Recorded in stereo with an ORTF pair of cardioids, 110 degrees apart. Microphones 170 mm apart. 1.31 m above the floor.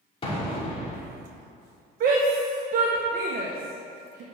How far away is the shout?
About 1.3 m.